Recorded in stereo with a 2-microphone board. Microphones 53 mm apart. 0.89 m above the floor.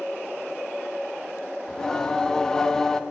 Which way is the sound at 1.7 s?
15° left (ahead or behind).